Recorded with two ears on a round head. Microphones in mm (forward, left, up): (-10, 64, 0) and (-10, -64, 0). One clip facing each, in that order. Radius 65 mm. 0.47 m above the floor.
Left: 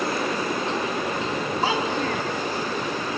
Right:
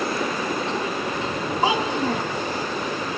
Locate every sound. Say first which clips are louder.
1.6 s a child speaking: right 4 dB; 15° right (ahead or behind), 1.8 m